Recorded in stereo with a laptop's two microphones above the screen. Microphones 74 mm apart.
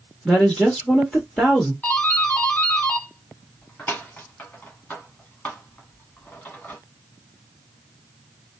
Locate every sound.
0.2 s a woman speaking: 10° left (ahead or behind), 1.2 m
1.8 s a doorbell: 25° left (ahead or behind), 1.1 m